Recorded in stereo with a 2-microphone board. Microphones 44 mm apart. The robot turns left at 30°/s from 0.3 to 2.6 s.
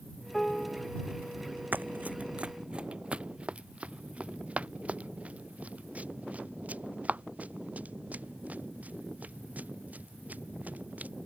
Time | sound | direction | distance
0.3 | a piano | 5° left (ahead or behind) | ?
1.7 | running footsteps | 40° right (ahead or behind) | ?